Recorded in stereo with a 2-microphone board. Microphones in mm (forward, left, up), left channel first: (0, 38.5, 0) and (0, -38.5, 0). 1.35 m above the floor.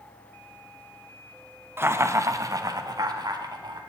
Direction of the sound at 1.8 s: 30° right (ahead or behind).